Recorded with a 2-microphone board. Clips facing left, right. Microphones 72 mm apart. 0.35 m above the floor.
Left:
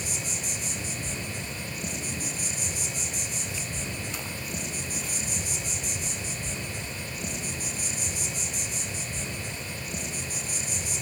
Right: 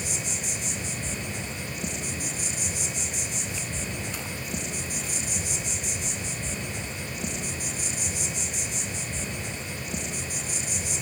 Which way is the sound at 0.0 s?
20° right (ahead or behind).